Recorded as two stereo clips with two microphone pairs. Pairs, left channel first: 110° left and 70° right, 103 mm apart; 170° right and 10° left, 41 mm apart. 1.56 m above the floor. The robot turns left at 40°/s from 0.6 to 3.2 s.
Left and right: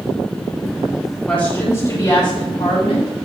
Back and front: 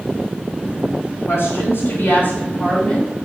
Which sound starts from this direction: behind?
A woman speaking, at 1.3 s.